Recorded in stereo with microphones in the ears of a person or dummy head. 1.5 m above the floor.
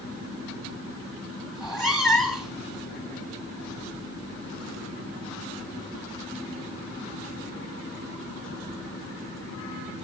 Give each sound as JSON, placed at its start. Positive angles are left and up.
{"t": 1.6, "sound": "a cat meowing", "side_deg": 5, "distance_m": 1.3}